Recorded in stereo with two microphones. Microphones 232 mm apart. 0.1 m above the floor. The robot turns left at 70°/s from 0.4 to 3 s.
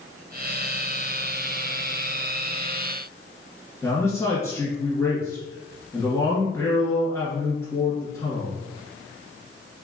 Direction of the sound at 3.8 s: 10° left (ahead or behind).